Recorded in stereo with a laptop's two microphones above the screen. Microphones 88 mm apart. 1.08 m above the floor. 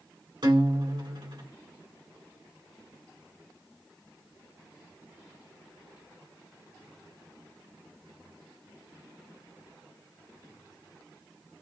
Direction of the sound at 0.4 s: 60° right (ahead or behind).